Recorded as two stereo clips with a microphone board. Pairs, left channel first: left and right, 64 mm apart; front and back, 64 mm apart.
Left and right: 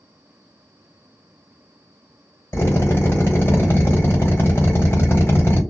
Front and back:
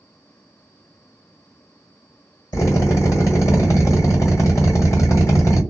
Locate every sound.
2.5 s a drill: 40° left, 2.0 m